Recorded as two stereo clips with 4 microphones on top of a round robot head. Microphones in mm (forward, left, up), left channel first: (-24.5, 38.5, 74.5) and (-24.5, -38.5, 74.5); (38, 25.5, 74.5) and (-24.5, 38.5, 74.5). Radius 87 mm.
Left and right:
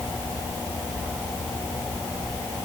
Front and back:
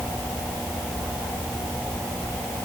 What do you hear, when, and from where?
Only background noise.